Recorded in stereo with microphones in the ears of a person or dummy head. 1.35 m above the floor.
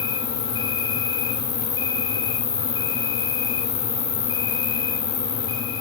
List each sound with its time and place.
0.0 s an insect: 25° left (ahead or behind), 2 m